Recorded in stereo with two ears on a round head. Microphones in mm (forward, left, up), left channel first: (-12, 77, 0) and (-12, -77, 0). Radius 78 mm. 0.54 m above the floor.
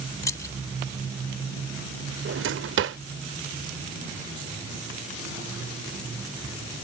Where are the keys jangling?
20° left (ahead or behind).